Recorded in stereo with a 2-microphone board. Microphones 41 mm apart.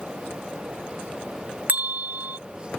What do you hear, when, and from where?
1.7 s a bell: 45° right (ahead or behind)